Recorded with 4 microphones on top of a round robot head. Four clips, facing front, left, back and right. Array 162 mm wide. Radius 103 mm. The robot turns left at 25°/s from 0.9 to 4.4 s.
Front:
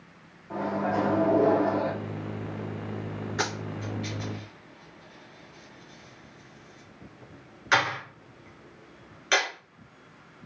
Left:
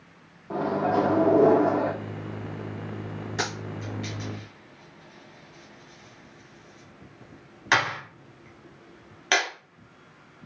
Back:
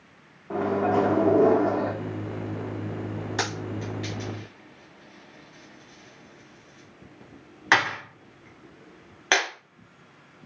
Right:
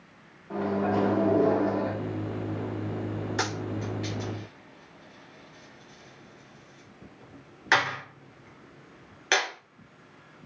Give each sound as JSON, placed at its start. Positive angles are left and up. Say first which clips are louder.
{"t": 0.5, "sound": "a microwave", "louder": "left 2 dB, back 5 dB", "azimuth_deg": 145, "distance_m": 0.7}
{"t": 3.4, "sound": "a dropped coin", "louder": "left 1 dB, even", "azimuth_deg": -175, "distance_m": 2.5}